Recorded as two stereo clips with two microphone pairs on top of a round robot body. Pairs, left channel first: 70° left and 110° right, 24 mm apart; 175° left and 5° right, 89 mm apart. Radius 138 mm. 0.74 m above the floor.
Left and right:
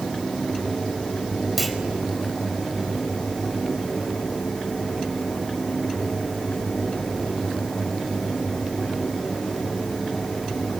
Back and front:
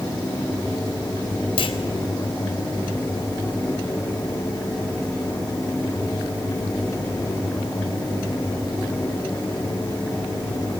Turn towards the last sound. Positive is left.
turn(degrees=160)